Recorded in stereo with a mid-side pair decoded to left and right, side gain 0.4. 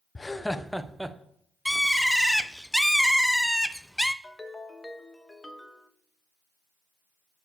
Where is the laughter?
30° left, 0.6 m; by 1.2 s 10° right, 1.1 m.